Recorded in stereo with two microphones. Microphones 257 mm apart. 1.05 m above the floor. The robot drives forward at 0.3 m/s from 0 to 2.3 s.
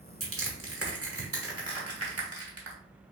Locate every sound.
0.2 s crushing: 55° right (ahead or behind), 1.3 m; by 2.8 s 60° right (ahead or behind), 1.3 m